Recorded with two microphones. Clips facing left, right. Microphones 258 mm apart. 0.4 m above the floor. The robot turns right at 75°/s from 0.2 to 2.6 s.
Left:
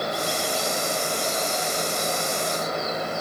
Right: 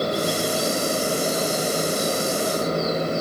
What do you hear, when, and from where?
Only background noise.